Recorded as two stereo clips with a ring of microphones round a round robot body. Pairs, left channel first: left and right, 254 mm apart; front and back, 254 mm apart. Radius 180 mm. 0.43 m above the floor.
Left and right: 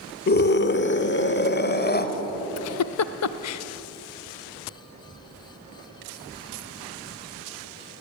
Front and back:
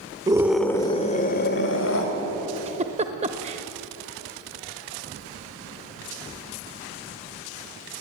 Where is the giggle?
110° left, 0.6 m.